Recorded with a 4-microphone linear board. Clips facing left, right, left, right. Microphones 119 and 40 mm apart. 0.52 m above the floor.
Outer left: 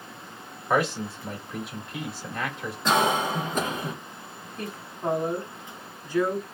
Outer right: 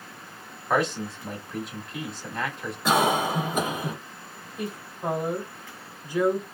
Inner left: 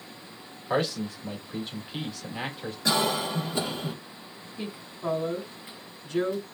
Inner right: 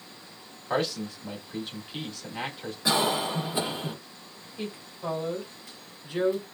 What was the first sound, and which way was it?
A man speaking, 5° left (ahead or behind).